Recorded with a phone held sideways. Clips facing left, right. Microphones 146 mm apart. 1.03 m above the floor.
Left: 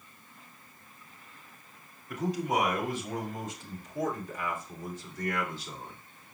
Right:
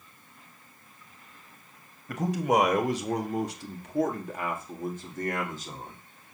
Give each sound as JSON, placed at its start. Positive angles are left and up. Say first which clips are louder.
{"t": 2.1, "sound": "a man speaking", "louder": "right 4 dB", "side_deg": -75, "distance_m": 1.7}